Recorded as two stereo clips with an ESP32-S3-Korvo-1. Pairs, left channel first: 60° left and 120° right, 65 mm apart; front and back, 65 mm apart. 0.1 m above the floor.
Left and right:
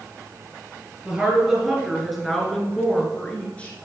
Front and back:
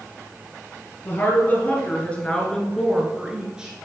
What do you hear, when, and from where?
1.1 s a woman speaking: 45° right, 2 m; by 3.9 s 115° left, 1.9 m